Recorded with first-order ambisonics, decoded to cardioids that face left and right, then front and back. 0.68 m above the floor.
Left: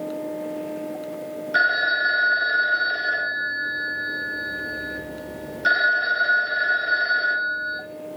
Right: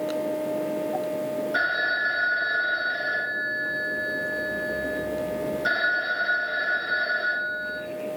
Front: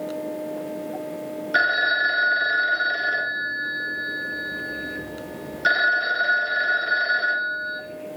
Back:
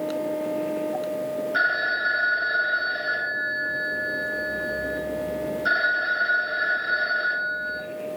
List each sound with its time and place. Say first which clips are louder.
1.5 s a phone ringing: left 6 dB, front 4 dB; 20° left, 0.7 m